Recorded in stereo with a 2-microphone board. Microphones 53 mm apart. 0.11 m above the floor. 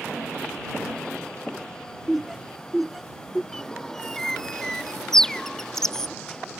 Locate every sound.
2.1 s laughter: 5° right (ahead or behind)
3.5 s a bird: 10° left (ahead or behind)